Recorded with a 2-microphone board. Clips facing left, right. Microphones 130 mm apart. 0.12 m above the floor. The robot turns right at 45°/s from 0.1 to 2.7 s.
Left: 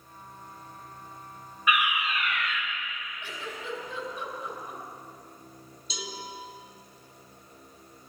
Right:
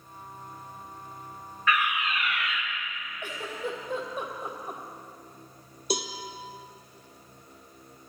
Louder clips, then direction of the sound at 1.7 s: Even; 155° left.